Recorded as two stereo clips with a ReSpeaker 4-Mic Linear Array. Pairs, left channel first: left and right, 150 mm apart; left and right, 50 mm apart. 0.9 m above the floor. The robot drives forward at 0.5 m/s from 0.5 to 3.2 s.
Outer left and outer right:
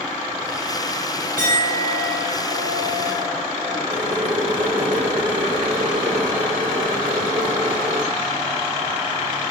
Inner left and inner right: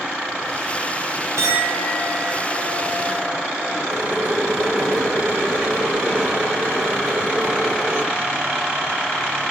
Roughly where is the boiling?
Right.